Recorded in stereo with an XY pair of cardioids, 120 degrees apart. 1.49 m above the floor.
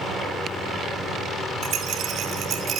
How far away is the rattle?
About 3.5 m.